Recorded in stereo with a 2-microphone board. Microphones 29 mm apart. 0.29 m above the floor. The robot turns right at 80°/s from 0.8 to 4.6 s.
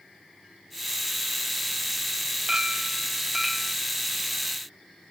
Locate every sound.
2.5 s a clink: 25° right (ahead or behind), 0.8 m; by 3.8 s 10° left (ahead or behind), 0.8 m